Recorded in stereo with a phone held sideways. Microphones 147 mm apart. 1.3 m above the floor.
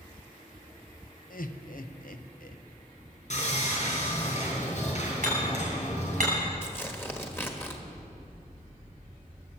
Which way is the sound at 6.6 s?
15° left (ahead or behind).